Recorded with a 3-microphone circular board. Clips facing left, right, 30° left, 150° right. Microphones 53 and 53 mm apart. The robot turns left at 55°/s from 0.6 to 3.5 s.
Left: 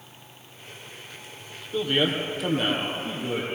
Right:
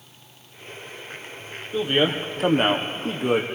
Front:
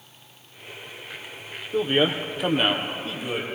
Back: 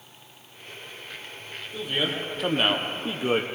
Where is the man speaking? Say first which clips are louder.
Right 2 dB, front 7 dB; 15° right, 3 m; by 3.5 s 105° right, 3 m.